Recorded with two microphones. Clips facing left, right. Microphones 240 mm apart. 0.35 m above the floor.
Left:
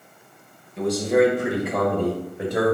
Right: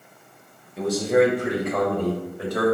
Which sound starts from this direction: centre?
A man speaking, at 0.8 s.